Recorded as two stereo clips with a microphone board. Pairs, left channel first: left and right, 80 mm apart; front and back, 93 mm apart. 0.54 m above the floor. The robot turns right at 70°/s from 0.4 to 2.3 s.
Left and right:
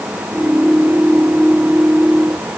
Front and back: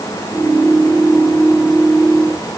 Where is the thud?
I don't hear a thud.